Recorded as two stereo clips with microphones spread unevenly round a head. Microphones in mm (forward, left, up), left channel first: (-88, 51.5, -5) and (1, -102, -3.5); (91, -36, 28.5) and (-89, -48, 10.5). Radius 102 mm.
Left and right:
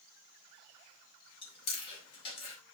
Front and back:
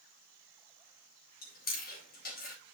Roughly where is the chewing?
Ahead left.